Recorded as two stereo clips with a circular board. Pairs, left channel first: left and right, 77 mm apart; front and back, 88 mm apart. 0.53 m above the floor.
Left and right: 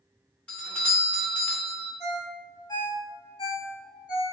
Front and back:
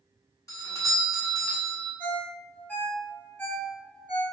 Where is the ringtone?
70° left, 1.3 m.